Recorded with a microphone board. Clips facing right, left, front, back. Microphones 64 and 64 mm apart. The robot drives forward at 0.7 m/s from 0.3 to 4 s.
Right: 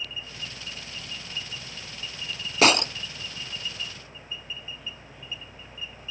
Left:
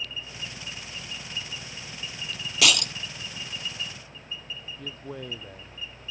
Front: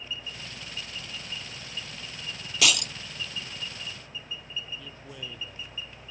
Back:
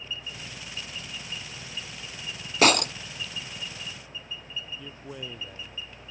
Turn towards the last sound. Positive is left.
turn(degrees=110)